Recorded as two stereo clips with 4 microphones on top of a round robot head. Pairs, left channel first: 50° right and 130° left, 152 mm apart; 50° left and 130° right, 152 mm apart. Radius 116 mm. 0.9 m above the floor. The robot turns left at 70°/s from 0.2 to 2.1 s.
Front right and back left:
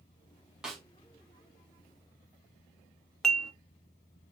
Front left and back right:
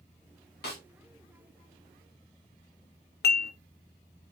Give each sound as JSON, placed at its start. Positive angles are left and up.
{"t": 0.6, "sound": "a snare drum", "azimuth_deg": 45, "distance_m": 2.0}
{"t": 3.2, "sound": "dishes clattering", "azimuth_deg": 40, "distance_m": 0.6}